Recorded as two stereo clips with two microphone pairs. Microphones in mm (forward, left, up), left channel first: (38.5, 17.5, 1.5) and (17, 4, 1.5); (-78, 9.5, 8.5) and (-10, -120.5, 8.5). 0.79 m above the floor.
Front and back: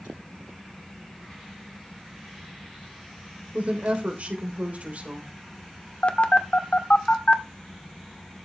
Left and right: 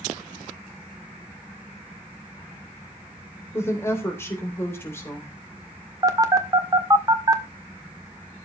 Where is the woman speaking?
170° right, 3 m.